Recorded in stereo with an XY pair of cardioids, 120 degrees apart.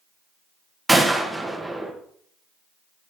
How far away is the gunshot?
About 1.9 m.